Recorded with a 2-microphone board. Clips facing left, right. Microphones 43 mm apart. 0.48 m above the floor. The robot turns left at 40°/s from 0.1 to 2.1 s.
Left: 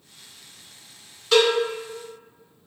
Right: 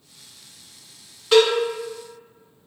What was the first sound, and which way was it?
A cowbell, 20° right (ahead or behind).